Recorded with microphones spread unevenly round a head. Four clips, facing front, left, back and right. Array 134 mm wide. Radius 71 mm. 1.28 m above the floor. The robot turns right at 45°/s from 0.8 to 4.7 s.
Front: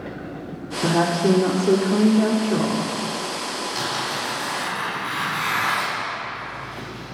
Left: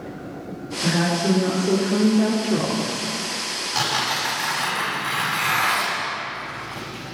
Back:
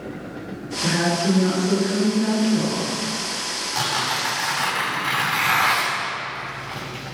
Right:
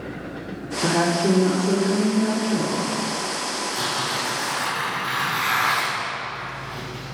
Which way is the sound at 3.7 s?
125° left.